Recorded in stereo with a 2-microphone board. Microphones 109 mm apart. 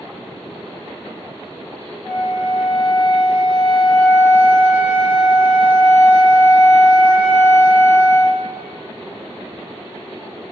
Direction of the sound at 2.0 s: 10° left (ahead or behind).